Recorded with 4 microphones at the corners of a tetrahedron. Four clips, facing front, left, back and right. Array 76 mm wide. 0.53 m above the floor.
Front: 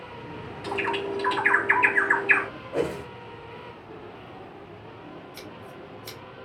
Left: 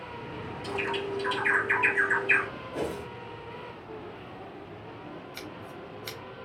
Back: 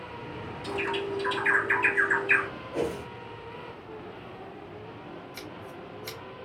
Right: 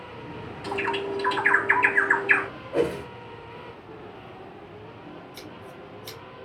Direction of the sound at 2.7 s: 55° right.